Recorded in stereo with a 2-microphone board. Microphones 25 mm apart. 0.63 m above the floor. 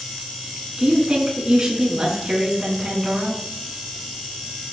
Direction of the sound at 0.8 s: 25° right (ahead or behind).